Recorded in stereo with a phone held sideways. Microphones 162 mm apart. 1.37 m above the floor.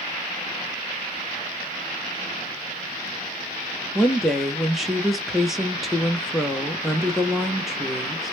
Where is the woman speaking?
Centre (ahead or behind), 0.9 m.